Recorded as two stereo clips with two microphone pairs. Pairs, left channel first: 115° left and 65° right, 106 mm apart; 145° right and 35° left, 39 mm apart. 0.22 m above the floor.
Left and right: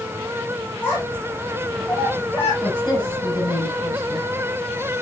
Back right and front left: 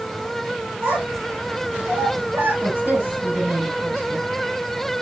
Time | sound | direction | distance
0.8 | a child speaking | 40° left | 8.5 m
2.6 | a woman speaking | 65° left | 9.5 m